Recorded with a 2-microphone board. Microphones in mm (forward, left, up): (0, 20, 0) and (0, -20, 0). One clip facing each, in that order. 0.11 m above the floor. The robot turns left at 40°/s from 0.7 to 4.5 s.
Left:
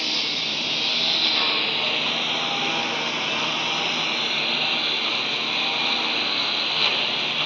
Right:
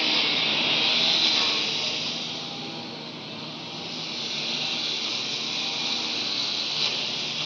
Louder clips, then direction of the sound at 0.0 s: Right 2 dB; 170° right.